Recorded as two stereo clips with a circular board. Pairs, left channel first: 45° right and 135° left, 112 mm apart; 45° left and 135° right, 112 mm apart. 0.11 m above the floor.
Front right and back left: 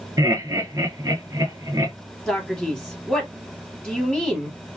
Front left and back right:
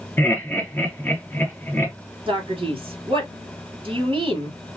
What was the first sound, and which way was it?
Laughter, 105° left.